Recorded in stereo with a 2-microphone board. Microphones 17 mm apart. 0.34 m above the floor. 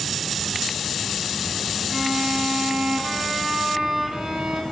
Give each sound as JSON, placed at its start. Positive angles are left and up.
{"t": 1.9, "sound": "a violin", "side_deg": -30, "distance_m": 1.8}